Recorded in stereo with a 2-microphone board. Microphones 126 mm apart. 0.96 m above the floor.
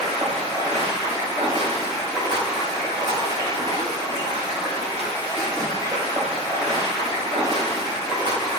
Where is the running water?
35° right (ahead or behind), 1.5 m.